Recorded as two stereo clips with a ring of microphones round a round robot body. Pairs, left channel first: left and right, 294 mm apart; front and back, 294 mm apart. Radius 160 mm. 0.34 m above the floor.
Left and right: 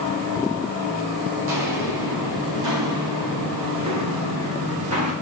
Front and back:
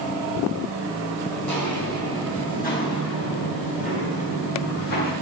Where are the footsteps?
85° right, 9.5 m; by 5.1 s 55° right, 8 m.